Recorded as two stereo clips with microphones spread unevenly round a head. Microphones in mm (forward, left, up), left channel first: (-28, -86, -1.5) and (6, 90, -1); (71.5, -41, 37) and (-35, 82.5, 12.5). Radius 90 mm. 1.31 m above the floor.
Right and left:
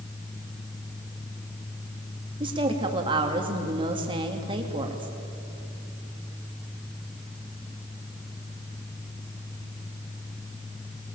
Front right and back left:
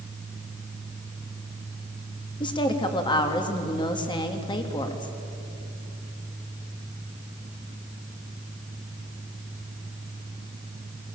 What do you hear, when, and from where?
2.4 s a woman speaking: 15° left, 2.5 m